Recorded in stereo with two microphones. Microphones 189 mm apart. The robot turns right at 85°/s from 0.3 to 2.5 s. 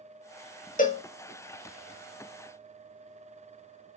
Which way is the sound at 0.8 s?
45° left (ahead or behind).